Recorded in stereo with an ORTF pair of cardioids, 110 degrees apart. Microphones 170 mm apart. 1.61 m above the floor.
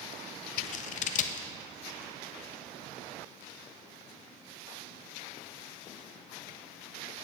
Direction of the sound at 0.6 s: 50° left.